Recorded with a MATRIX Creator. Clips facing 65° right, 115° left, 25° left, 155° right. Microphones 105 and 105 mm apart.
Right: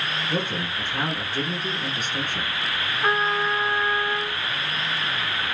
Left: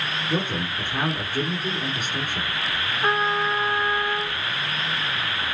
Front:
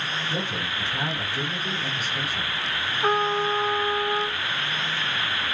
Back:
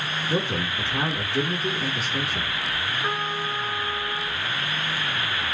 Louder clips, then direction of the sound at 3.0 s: Even, front 9 dB; 30° left.